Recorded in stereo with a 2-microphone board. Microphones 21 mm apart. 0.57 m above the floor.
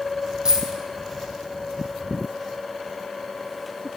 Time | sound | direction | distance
0.5 | a dropped coin | 30° right (ahead or behind) | 1.2 m